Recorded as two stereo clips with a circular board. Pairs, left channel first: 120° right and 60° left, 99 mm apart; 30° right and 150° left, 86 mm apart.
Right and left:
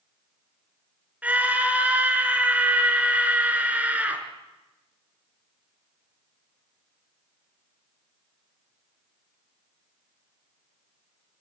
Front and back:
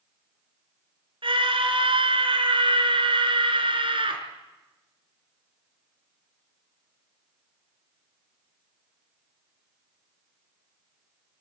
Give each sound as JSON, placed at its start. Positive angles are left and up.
{"t": 1.2, "sound": "a scream", "azimuth_deg": 135, "distance_m": 4.0}